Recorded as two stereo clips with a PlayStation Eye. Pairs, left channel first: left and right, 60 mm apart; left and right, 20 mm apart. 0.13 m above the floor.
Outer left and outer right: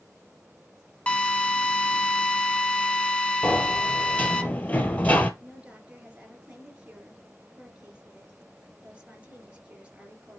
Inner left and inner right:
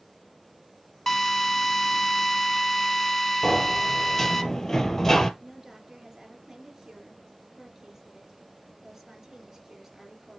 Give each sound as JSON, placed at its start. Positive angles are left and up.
{"t": 1.1, "sound": "a drill", "side_deg": 20, "distance_m": 0.8}
{"t": 3.4, "sound": "a sliding door", "side_deg": 25, "distance_m": 0.9}
{"t": 5.4, "sound": "a woman speaking", "side_deg": -20, "distance_m": 2.5}